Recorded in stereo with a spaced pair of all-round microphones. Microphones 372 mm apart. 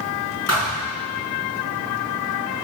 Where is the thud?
45° left (ahead or behind), 5.5 m.